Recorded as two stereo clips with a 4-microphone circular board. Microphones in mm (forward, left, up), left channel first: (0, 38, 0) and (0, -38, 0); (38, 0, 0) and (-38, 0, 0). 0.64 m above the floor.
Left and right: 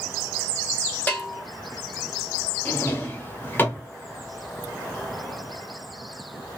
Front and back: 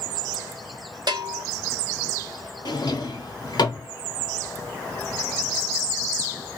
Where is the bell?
160° left, 0.7 m.